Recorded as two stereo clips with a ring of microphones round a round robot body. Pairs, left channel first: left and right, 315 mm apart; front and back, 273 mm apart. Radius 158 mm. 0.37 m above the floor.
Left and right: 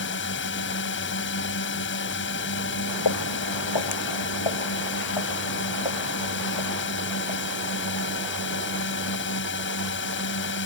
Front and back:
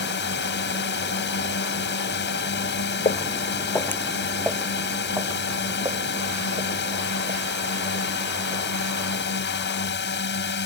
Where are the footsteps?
65° left; by 8.6 s 115° left.